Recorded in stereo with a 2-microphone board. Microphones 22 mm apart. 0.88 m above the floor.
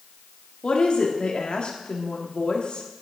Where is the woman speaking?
55° left (ahead or behind), 1.6 m.